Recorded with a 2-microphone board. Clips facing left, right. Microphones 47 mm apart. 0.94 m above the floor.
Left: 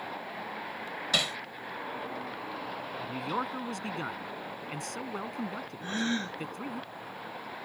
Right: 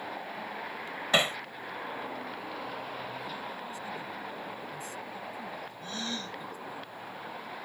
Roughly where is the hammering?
Right.